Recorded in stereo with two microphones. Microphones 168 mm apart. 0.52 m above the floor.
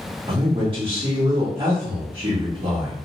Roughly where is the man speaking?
Right.